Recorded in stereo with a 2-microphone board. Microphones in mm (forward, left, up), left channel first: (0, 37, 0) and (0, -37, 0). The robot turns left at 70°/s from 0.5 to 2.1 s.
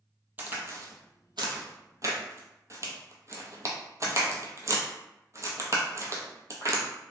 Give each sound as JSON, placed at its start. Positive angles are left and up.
{"t": 0.4, "sound": "a crack", "side_deg": -25, "distance_m": 0.8}